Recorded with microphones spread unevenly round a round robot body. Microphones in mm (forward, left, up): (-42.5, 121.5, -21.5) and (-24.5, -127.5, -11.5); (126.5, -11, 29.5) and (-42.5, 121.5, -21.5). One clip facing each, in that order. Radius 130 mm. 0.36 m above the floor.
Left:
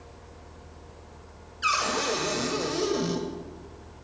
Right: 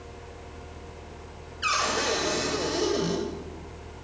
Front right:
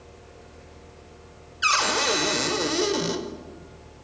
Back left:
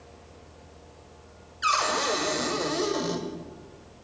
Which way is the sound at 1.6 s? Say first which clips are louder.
Even, front right 2 dB; 15° left.